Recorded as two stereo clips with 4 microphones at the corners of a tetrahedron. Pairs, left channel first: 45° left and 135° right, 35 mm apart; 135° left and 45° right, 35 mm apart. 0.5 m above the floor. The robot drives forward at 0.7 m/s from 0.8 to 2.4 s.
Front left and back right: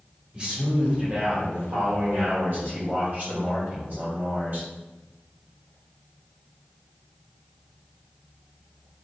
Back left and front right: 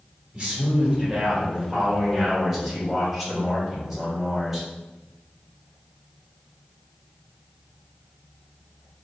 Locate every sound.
0.3 s a man speaking: 90° right, 1.7 m; by 4.7 s 135° right, 2 m